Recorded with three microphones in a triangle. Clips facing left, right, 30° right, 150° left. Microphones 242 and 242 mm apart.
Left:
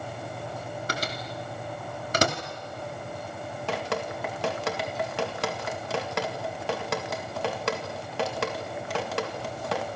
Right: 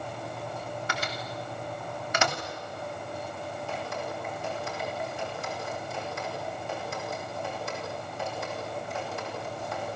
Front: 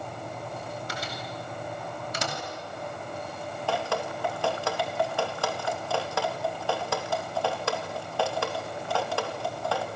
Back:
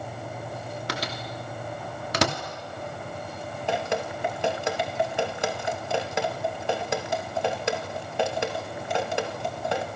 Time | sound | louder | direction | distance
0.9 | a microwave | left 2 dB, back 3 dB | 140° left | 2.5 m
3.7 | dripping | left 7 dB, back 2 dB | 80° left | 2 m